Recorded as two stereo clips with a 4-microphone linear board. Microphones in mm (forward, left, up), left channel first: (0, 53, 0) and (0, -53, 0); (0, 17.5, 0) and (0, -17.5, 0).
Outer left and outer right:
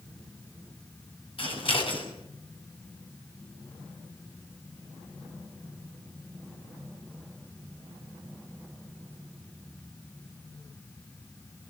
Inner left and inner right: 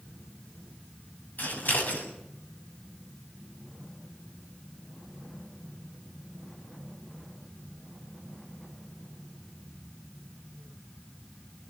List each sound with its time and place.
1.4 s scissors: 60° left (ahead or behind), 7 m